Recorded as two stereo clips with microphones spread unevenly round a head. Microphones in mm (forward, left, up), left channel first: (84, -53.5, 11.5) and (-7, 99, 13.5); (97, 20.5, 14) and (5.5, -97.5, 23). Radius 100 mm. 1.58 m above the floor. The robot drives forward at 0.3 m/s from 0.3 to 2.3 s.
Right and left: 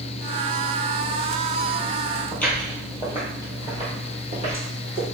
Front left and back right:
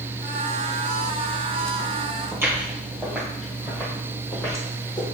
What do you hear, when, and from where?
2.3 s footsteps: 125° right, 1.6 m; by 5.0 s 115° left, 2 m